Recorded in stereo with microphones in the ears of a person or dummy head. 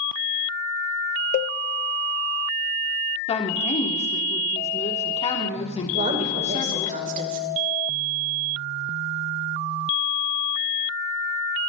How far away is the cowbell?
About 0.6 m.